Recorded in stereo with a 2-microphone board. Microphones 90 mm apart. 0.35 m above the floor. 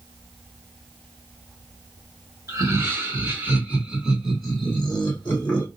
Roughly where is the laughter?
Right.